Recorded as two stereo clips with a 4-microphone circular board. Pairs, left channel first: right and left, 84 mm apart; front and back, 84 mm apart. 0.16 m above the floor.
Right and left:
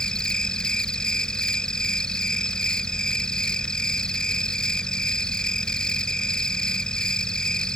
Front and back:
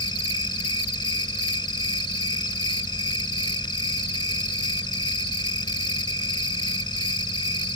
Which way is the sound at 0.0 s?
10° right.